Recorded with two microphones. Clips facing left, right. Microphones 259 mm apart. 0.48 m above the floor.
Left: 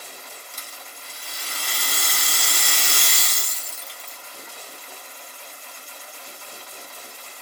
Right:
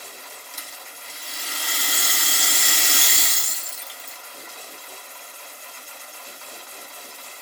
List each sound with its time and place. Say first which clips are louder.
0.5 s a rattle: even; 5° right (ahead or behind), 1.2 m